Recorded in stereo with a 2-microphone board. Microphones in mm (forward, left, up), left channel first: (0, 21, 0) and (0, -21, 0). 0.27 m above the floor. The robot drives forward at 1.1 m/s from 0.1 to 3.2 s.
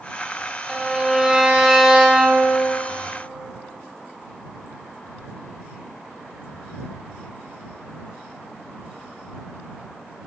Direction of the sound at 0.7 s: 15° right (ahead or behind).